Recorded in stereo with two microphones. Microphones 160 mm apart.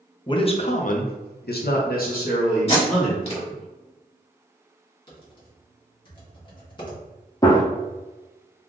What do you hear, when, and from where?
0.3 s a man speaking: 30° left (ahead or behind), 0.6 m; by 3.6 s 45° left (ahead or behind), 1.4 m
2.7 s tape being pulled: 40° left (ahead or behind), 1.2 m
5.1 s typing on a keyboard: 30° left (ahead or behind), 1.1 m
7.4 s a gunshot: 25° left (ahead or behind), 0.6 m